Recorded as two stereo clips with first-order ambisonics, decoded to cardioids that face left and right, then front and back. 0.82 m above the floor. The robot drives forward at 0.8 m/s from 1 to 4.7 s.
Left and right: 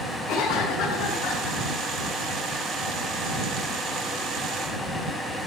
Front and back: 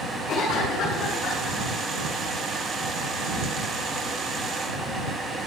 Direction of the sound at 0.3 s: 55° left.